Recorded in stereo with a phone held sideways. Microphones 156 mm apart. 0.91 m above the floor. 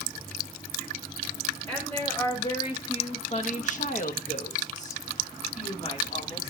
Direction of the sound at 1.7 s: 10° left (ahead or behind).